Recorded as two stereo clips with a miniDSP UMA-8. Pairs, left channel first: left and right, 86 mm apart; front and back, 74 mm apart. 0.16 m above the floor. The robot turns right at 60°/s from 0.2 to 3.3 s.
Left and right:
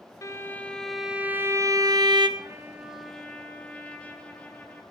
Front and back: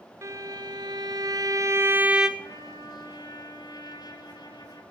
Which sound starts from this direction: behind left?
A violin, at 0.2 s.